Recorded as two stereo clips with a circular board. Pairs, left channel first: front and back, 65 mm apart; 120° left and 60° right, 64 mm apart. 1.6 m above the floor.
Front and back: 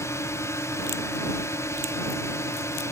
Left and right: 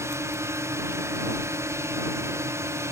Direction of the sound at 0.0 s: 30° right.